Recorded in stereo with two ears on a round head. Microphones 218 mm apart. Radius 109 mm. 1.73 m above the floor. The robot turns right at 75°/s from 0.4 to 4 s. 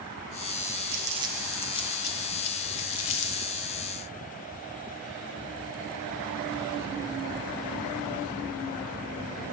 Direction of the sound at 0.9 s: 45° right (ahead or behind).